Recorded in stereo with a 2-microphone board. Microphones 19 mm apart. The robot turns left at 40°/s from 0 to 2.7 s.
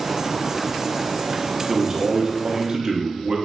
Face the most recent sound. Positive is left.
turn(degrees=-90)